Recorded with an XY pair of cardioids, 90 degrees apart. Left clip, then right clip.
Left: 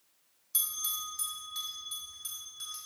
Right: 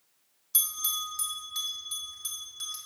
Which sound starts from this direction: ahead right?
A bell, at 0.5 s.